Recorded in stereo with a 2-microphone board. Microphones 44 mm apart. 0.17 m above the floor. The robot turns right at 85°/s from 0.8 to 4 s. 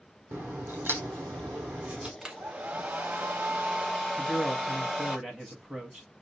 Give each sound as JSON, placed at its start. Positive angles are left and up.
{"t": 0.3, "sound": "a crack", "azimuth_deg": -125, "distance_m": 1.0}
{"t": 2.2, "sound": "a hair dryer", "azimuth_deg": -160, "distance_m": 0.9}
{"t": 4.2, "sound": "a man speaking", "side_deg": -15, "distance_m": 1.1}